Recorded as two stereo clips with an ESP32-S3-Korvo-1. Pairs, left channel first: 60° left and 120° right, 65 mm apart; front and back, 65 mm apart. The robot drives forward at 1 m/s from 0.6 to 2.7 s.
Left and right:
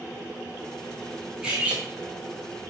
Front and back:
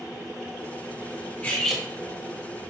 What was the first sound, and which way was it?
Cutlery clinking, 55° right.